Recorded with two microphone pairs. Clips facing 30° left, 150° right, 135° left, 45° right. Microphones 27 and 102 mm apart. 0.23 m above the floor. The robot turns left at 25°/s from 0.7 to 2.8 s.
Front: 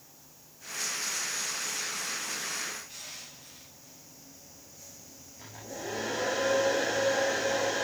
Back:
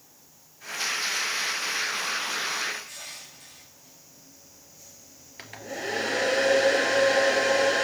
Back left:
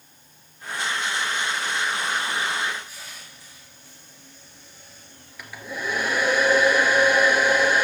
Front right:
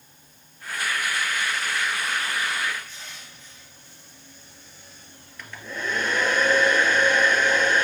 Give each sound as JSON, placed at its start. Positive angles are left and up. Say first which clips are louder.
{"t": 2.9, "sound": "crushing", "louder": "back 3 dB, even", "azimuth_deg": -140, "distance_m": 4.0}
{"t": 5.4, "sound": "a hair dryer", "louder": "back 6 dB, back left 1 dB", "azimuth_deg": -140, "distance_m": 1.7}